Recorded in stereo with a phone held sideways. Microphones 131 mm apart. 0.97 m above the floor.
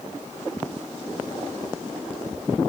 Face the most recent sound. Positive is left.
No sound to turn to.